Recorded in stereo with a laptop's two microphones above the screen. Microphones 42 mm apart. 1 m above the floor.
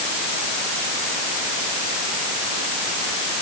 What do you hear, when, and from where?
Only background noise.